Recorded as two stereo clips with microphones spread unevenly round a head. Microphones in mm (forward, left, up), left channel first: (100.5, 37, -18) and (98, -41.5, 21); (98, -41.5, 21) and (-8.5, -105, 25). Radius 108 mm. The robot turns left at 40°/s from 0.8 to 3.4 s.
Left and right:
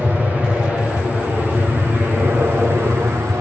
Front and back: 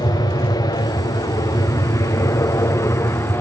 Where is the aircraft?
Straight ahead; by 3.4 s 25° right.